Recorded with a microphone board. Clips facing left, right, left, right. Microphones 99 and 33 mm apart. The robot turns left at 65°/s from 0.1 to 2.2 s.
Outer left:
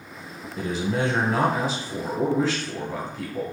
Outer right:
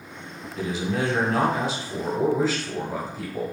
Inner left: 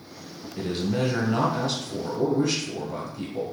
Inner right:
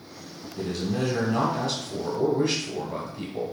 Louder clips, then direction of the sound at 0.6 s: Outer left 1 dB, inner left 2 dB; 85° left.